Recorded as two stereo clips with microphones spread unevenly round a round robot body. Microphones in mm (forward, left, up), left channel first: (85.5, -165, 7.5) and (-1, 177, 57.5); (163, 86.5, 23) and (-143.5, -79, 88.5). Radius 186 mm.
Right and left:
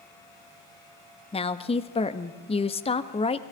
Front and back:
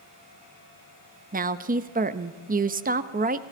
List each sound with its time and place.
1.3 s a woman speaking: 90° right, 0.9 m